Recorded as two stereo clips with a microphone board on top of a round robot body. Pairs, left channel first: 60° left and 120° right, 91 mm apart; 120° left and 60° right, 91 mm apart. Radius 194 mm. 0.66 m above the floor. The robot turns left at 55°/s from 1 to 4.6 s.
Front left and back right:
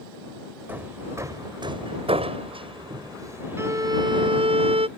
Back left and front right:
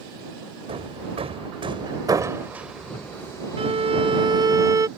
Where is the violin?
55° right; by 4.9 s 115° right.